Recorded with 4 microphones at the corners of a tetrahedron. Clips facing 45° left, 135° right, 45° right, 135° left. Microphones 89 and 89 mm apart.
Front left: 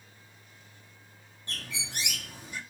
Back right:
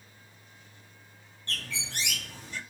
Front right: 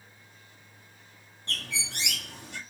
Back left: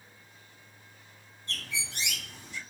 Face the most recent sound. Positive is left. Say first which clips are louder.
# back right 2 dB, front right 2 dB
turn(degrees=-30)